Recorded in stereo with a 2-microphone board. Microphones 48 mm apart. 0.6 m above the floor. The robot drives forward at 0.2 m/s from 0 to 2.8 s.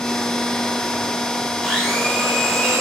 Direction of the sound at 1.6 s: Centre (ahead or behind).